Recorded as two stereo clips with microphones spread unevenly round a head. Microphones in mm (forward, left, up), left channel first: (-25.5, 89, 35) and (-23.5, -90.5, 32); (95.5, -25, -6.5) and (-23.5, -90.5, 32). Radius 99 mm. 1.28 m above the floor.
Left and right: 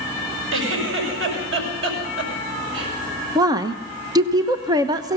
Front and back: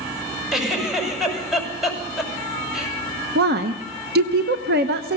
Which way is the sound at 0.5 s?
65° right.